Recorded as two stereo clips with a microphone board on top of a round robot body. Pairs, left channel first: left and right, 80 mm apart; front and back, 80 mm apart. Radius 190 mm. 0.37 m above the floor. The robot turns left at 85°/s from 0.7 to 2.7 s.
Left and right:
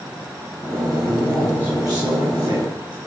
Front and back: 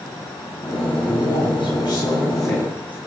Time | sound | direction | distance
1.1 | a man speaking | 30° left | 7.5 m